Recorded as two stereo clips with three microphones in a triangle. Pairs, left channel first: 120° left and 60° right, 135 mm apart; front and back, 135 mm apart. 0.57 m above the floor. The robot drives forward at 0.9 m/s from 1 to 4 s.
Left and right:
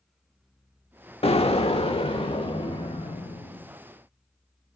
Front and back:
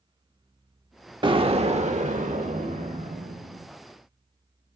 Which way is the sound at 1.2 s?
140° left.